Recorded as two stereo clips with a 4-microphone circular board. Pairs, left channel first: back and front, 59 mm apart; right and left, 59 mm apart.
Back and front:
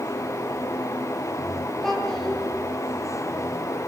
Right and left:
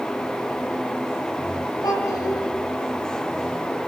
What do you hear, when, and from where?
1.8 s a child speaking: 95° right, 10 m